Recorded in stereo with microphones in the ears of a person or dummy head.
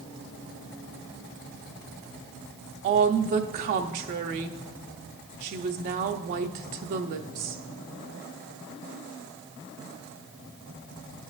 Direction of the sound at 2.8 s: 40° right (ahead or behind).